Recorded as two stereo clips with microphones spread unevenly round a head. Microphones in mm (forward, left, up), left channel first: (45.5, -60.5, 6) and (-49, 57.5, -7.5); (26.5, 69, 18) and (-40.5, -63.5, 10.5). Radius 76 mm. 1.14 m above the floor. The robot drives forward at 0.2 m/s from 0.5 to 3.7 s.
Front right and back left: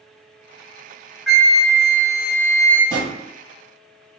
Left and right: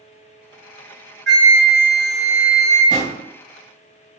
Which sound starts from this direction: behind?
A drawer, at 2.9 s.